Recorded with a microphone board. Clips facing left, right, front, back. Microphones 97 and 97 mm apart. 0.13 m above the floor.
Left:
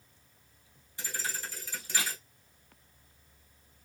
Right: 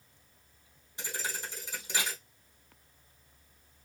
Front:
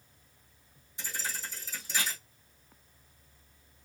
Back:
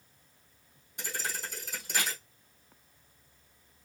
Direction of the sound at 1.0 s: 160° right.